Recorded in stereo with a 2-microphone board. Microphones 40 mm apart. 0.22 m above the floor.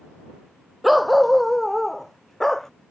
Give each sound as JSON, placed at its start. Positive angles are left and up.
{"t": 0.8, "sound": "a dog barking", "side_deg": 0}